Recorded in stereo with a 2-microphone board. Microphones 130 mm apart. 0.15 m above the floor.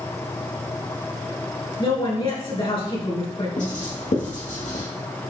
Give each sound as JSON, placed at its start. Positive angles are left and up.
{"t": 1.8, "sound": "a woman speaking", "side_deg": 40, "distance_m": 3.0}
{"t": 3.6, "sound": "writing", "side_deg": 75, "distance_m": 2.5}